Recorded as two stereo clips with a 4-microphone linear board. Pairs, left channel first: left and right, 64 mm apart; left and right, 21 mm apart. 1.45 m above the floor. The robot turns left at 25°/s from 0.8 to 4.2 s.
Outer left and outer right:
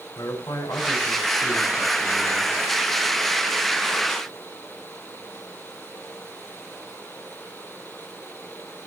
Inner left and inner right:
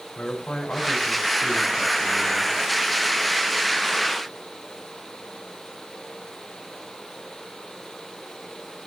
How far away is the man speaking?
About 5.5 m.